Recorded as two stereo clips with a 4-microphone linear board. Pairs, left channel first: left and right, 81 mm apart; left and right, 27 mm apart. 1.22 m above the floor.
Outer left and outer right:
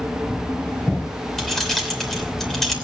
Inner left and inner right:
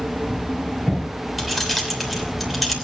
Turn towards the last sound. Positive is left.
turn(degrees=5)  # may be behind; listen again after turning